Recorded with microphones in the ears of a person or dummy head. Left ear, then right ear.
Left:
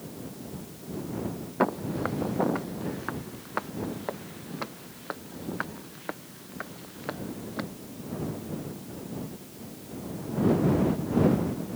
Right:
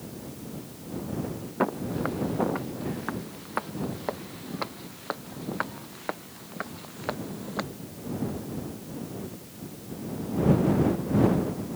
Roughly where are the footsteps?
Centre.